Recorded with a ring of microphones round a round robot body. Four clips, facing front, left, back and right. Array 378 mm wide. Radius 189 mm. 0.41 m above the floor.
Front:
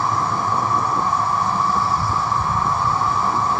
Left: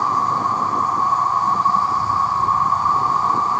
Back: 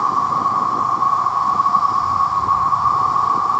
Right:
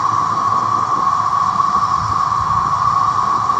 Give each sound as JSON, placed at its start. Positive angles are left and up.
{"t": 0.0, "sound": "an insect", "azimuth_deg": -30, "distance_m": 0.8}